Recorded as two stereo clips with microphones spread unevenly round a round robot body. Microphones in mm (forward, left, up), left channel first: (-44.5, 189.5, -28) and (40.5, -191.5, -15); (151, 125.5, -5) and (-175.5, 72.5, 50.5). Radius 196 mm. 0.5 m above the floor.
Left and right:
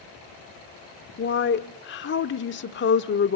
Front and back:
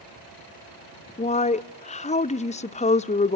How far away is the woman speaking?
About 0.8 m.